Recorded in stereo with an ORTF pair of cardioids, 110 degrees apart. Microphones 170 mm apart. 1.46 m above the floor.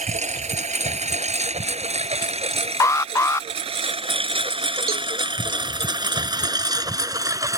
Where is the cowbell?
60° right.